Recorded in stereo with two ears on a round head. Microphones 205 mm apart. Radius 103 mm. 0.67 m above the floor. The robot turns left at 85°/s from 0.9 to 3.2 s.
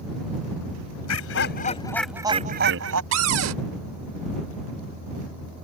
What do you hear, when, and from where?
1.1 s laughter: 85° left; by 3.0 s 80° right
3.1 s a cupboard door: 55° right (ahead or behind); by 3.6 s 65° right (ahead or behind)